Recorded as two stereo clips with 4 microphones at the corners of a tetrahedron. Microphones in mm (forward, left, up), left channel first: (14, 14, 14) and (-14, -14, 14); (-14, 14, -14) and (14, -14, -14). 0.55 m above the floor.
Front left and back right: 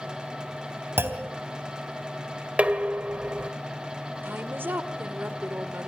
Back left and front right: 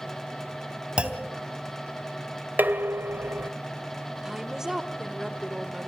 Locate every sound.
1.0 s a clunk: 115° right, 3 m
2.6 s dishes clattering: 80° right, 1.7 m
4.2 s a woman speaking: 125° right, 1.7 m